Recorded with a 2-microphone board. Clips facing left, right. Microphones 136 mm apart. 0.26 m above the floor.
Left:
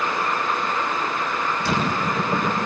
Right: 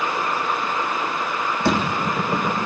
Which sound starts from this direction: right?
A door slam, at 1.6 s.